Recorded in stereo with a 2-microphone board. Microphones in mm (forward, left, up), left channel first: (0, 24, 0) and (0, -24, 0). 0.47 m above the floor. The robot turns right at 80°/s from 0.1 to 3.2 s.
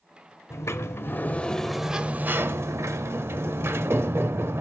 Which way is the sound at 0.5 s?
80° left.